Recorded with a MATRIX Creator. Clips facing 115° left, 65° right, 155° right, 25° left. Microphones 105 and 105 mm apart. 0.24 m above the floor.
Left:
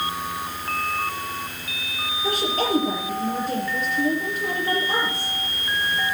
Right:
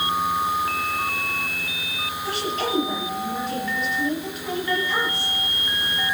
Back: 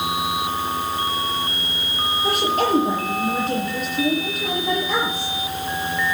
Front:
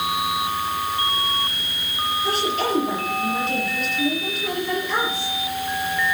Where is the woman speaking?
160° left, 6 m.